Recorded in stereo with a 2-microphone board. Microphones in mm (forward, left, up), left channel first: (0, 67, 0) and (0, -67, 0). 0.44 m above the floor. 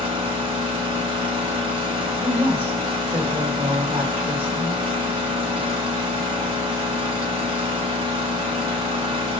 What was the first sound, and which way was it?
An engine running, 50° right (ahead or behind).